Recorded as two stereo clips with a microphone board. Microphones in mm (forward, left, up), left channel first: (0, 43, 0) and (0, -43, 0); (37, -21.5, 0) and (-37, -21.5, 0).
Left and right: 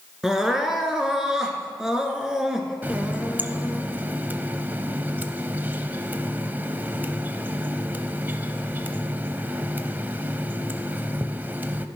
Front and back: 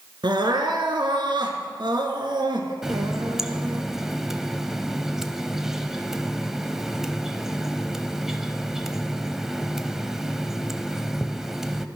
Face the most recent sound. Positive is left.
turn(degrees=-105)